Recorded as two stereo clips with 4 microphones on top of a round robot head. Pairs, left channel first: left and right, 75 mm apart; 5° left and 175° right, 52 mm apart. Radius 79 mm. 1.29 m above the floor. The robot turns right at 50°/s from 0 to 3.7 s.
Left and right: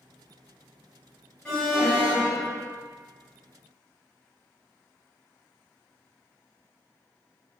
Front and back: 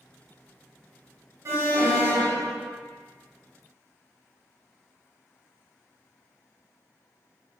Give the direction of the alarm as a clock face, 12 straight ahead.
6 o'clock.